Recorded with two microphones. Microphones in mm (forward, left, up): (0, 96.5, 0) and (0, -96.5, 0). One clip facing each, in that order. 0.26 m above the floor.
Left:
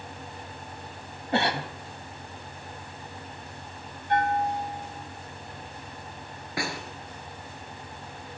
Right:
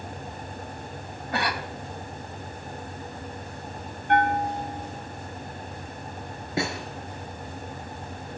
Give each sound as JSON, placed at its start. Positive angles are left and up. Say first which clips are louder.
{"t": 1.3, "sound": "a cough", "louder": "left 3 dB", "side_deg": 25, "distance_m": 1.6}
{"t": 4.1, "sound": "a bell", "louder": "right 2 dB", "side_deg": -70, "distance_m": 7.0}
{"t": 6.6, "sound": "a snare drum", "louder": "right 4 dB", "side_deg": -25, "distance_m": 4.0}